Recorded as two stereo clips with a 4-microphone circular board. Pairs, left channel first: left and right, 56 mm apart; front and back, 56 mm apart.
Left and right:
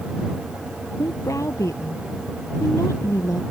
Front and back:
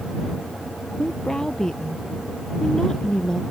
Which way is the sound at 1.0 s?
80° left.